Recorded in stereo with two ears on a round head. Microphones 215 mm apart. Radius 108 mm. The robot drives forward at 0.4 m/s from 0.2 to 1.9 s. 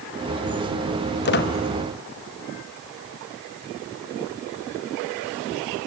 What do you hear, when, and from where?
1.2 s a squeak: 45° left (ahead or behind), 2 m